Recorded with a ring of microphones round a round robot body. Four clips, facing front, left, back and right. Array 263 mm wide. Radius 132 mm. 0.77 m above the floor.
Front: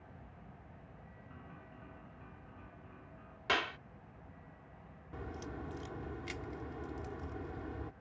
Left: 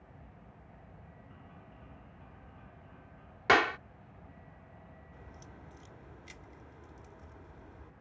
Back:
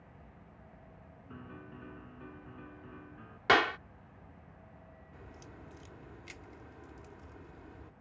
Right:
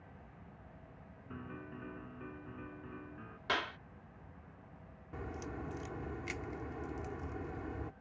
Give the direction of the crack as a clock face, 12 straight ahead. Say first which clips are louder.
Right 14 dB, front 10 dB; 2 o'clock.